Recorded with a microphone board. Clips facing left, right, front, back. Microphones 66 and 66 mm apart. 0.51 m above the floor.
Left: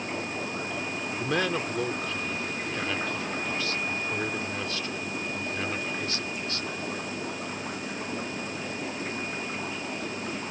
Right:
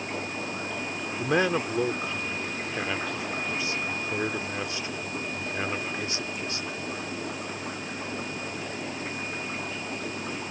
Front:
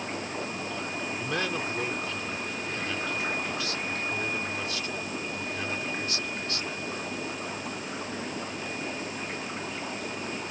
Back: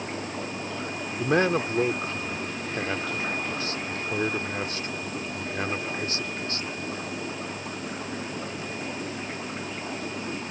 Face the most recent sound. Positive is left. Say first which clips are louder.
# right 4 dB, back 10 dB
turn(degrees=-150)